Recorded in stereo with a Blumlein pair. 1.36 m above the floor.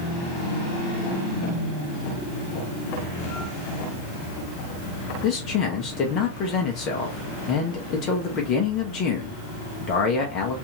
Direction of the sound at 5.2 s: 35° left.